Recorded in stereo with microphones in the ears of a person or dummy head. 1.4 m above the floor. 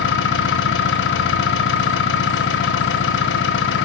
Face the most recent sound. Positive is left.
turn(degrees=60)  # may be behind; listen again after turning